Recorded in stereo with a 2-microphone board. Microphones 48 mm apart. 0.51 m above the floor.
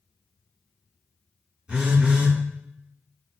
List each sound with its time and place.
1.7 s a phone buzzing: 20° right (ahead or behind), 1.4 m